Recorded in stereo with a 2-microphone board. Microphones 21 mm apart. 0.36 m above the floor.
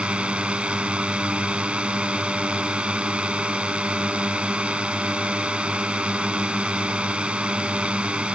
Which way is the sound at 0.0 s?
70° right (ahead or behind).